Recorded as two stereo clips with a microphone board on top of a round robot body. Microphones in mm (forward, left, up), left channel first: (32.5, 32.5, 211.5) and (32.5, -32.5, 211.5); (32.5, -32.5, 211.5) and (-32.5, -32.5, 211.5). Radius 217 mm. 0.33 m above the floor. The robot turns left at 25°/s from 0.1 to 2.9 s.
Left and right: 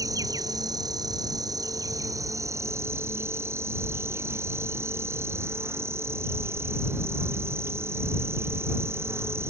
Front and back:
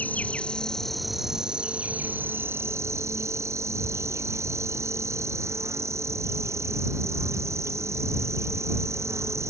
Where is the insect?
65° right; by 9.5 s 135° right.